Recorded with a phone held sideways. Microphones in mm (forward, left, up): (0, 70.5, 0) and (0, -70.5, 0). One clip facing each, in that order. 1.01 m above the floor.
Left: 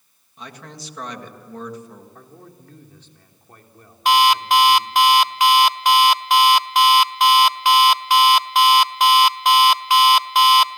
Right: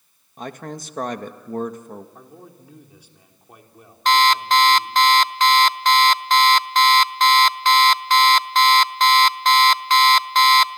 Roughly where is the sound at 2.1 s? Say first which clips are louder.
Right 1 dB; centre.